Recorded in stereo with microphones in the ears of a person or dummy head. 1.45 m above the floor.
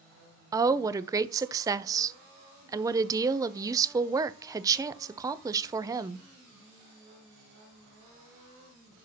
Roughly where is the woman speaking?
Centre.